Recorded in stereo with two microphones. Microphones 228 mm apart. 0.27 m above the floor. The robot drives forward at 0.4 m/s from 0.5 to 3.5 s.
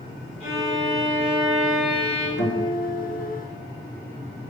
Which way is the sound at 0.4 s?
30° left (ahead or behind).